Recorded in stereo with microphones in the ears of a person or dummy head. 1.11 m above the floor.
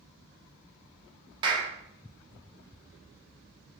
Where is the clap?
30° right (ahead or behind), 0.5 m.